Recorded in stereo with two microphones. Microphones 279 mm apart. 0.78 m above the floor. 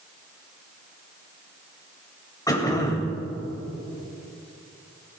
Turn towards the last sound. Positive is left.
turn(degrees=15)  # may be behind; listen again after turning